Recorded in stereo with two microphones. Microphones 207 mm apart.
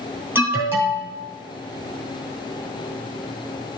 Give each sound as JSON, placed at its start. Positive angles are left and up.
{"t": 0.3, "sound": "an alarm", "side_deg": -10, "distance_m": 2.5}